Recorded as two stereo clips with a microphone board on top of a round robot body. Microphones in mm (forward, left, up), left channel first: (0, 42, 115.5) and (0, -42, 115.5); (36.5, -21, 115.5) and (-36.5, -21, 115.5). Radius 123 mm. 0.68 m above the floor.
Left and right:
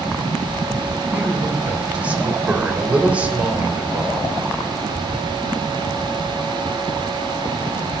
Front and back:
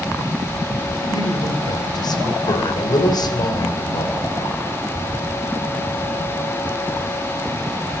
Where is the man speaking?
15° right, 3 m.